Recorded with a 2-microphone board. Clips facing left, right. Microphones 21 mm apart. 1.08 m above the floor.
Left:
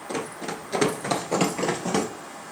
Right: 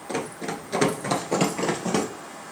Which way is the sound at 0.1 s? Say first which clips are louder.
Right 1 dB; 10° right (ahead or behind).